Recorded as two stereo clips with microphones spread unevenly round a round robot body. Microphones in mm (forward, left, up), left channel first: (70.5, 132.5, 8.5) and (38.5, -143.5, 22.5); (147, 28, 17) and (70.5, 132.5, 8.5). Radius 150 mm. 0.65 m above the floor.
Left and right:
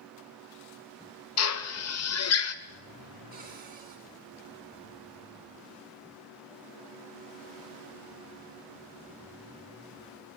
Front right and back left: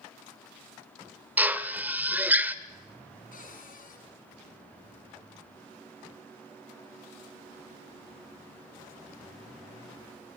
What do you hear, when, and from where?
1.4 s a drill: 50° left, 1.7 m
3.3 s a cupboard door: 35° right, 8 m